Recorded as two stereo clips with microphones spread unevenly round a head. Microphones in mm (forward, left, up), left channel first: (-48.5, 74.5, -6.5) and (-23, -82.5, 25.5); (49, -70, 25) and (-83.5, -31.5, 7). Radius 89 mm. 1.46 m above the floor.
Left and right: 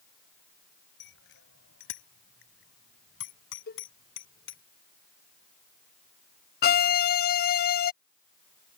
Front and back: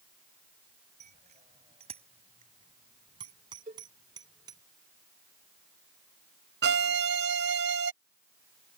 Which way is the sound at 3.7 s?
115° left.